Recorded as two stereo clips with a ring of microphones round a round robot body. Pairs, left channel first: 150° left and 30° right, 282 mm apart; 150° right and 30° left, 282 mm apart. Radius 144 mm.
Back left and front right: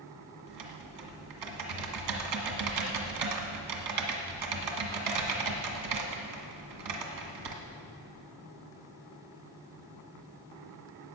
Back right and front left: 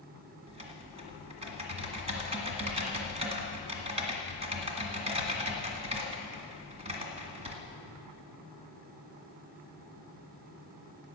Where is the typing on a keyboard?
40° right, 1.9 m.